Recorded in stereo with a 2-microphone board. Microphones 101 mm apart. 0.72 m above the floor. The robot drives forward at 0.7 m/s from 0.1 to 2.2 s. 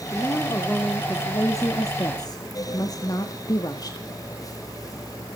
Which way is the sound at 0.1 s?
20° left (ahead or behind).